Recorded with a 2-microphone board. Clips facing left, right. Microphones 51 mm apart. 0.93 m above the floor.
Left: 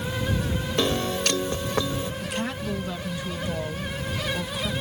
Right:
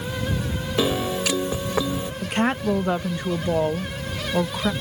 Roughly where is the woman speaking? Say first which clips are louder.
Right 7 dB; right.